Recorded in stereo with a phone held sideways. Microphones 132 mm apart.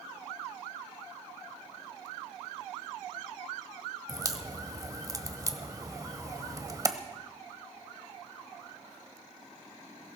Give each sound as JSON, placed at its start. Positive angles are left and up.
{"t": 4.1, "sound": "a crack", "side_deg": -25, "distance_m": 1.1}